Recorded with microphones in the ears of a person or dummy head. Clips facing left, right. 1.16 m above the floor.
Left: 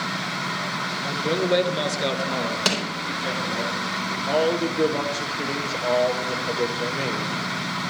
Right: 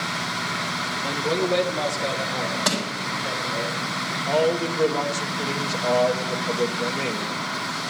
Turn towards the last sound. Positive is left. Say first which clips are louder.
# even
turn(degrees=10)  # may be behind; listen again after turning